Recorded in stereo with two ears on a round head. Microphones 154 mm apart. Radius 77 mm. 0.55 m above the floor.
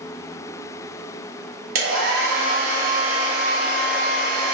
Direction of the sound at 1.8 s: 55° right (ahead or behind).